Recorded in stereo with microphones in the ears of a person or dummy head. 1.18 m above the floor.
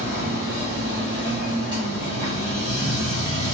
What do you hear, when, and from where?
0.0 s a machine running: 25° right (ahead or behind), 0.9 m